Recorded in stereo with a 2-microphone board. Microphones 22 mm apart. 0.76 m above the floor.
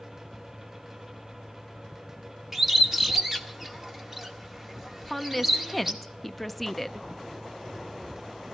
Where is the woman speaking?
5° left (ahead or behind), 0.5 m.